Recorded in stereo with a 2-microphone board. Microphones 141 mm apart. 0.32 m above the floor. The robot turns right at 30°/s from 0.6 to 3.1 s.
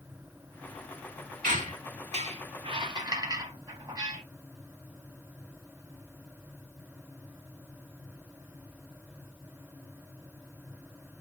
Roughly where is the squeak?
Right.